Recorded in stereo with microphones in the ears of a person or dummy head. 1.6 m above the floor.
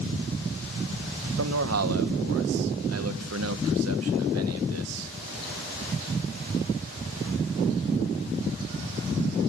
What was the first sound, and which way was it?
A man speaking, 80° right.